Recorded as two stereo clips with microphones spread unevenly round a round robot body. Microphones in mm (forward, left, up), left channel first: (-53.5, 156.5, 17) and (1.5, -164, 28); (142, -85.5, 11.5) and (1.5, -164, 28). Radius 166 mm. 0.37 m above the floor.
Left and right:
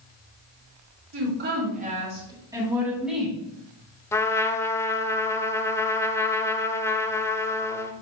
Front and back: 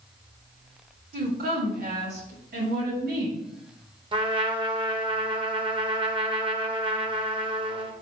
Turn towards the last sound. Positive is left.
turn(degrees=170)